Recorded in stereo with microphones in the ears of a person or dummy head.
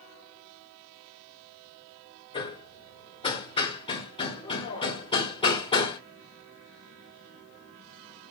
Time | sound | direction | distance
2.3 | hammering | 30° left (ahead or behind) | 2 m